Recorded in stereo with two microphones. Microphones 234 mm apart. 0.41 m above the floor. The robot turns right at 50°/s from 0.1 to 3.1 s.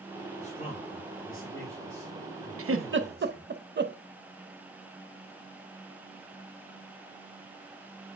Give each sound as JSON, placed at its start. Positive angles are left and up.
{"t": 0.4, "sound": "a man speaking", "azimuth_deg": 30, "distance_m": 2.5}
{"t": 2.6, "sound": "a giggle", "side_deg": -70, "distance_m": 0.6}